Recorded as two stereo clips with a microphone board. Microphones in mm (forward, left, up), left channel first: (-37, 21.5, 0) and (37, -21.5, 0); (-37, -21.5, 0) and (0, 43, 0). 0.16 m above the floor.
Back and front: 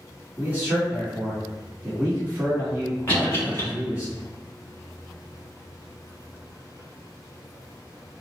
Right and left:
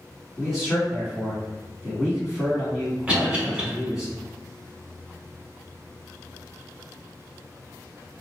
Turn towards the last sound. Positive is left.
turn(degrees=115)